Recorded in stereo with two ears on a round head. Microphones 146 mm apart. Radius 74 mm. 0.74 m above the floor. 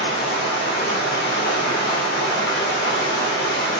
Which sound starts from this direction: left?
Running water, at 0.0 s.